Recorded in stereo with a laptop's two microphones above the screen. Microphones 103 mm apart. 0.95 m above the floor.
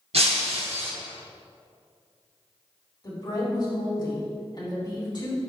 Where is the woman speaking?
45° left (ahead or behind), 1.8 m.